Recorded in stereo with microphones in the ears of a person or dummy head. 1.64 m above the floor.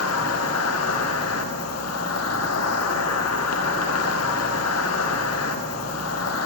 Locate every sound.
0.0 s an insect: 75° left (ahead or behind), 1.2 m